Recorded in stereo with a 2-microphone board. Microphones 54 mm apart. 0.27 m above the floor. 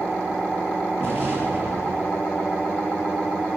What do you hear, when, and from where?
1.0 s an explosion: 40° right (ahead or behind), 5 m